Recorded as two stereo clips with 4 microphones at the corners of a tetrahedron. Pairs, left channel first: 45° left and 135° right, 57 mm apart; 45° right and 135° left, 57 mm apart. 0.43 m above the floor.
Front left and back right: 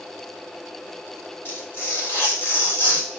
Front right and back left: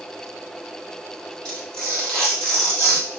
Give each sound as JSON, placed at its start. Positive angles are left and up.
{"t": 1.4, "sound": "tearing paper", "azimuth_deg": 20, "distance_m": 1.8}